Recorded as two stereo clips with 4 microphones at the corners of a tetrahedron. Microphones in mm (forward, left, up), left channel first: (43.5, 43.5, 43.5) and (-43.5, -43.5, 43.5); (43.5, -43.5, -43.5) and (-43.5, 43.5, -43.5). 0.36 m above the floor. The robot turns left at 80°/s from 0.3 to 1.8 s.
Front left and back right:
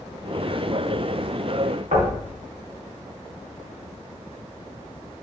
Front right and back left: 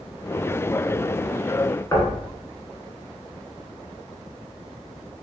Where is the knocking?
110° right, 2 m.